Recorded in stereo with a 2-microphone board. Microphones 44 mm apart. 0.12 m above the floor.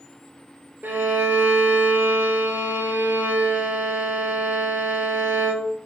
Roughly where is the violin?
Right.